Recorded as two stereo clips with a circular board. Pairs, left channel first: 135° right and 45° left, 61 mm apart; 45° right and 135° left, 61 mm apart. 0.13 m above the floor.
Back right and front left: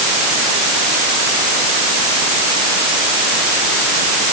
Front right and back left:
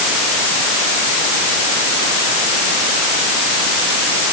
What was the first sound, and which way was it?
Only background noise.